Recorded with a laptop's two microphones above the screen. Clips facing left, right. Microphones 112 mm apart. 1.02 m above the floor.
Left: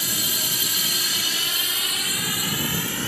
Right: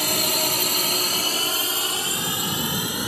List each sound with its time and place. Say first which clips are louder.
0.0 s a drone: right 7 dB; 70° right (ahead or behind); by 3.1 s 15° right (ahead or behind)